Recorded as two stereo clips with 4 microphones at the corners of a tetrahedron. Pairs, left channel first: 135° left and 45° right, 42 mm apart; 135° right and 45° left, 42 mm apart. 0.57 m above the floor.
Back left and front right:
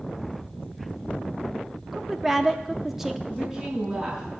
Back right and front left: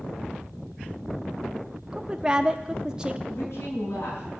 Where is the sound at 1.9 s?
20° left, 0.6 m.